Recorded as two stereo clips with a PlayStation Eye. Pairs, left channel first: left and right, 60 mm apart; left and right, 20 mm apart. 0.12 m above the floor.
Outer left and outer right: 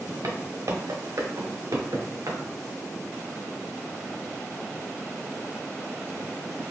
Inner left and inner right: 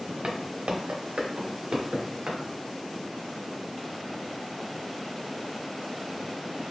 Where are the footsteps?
75° right (ahead or behind), 1.6 m; by 2.4 s 80° right, 2.5 m.